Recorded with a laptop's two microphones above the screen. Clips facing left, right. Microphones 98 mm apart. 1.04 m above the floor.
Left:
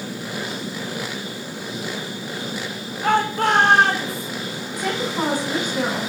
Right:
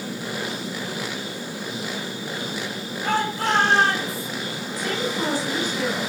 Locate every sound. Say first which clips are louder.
3.0 s a shout: left 5 dB; 60° left (ahead or behind), 3 m
4.8 s a woman speaking: left 2 dB; 55° left (ahead or behind), 10 m